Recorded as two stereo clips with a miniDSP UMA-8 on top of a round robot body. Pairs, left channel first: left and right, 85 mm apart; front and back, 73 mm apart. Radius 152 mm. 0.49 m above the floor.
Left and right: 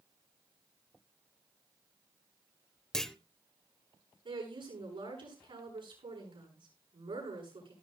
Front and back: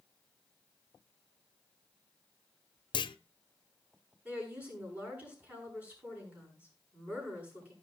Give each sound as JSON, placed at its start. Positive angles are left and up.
{"t": 2.9, "sound": "a clunk", "azimuth_deg": 5, "distance_m": 0.6}
{"t": 4.2, "sound": "a woman speaking", "azimuth_deg": -110, "distance_m": 7.5}